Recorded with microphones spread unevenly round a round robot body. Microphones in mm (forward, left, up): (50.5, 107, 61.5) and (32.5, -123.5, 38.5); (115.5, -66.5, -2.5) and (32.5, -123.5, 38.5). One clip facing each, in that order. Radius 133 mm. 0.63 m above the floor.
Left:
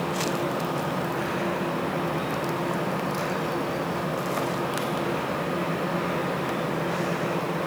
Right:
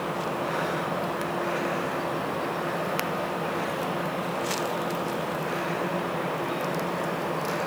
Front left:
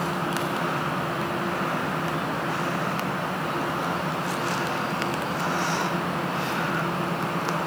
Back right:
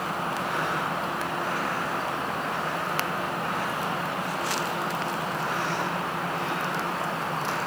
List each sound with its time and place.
Only background noise.